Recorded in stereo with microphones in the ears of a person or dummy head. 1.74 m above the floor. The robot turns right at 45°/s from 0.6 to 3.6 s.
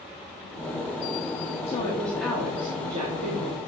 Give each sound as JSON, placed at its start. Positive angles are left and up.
{"t": 1.7, "sound": "a woman speaking", "azimuth_deg": 155, "distance_m": 1.4}